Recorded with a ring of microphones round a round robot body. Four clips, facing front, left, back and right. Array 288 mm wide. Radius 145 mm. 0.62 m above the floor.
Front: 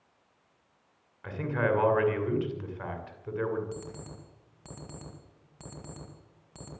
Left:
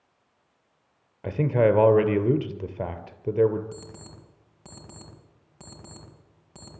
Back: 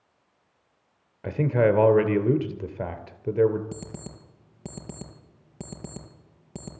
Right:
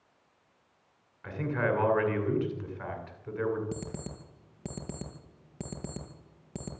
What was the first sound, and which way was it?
A man speaking, 130° left.